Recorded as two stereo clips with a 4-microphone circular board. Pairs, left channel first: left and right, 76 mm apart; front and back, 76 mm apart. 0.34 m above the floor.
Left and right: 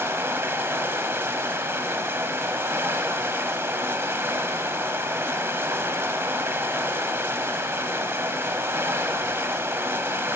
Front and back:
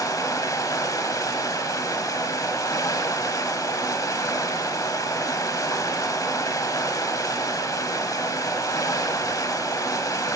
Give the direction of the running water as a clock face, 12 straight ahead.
1 o'clock.